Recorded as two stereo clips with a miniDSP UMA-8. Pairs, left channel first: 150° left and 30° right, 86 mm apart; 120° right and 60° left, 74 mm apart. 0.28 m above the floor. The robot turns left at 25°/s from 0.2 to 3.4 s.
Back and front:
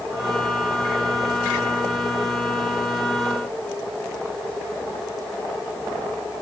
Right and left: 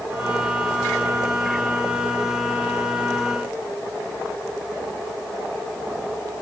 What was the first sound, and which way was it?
Only background noise.